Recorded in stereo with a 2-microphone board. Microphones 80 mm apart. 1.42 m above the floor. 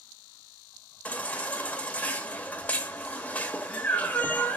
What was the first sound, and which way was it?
A baby crying, 20° left (ahead or behind).